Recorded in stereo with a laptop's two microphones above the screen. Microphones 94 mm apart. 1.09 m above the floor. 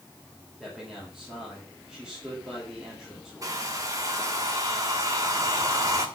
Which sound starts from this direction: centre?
A man speaking, at 0.6 s.